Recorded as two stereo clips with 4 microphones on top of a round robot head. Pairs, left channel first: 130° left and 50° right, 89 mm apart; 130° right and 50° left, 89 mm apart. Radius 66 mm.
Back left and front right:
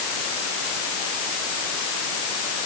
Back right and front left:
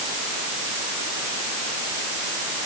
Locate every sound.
Only background noise.